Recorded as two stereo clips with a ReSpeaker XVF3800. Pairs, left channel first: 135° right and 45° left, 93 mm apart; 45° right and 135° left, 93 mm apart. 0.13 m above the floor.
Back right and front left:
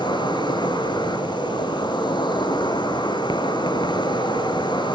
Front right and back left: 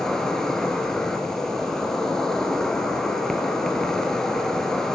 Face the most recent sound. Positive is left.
turn(degrees=-130)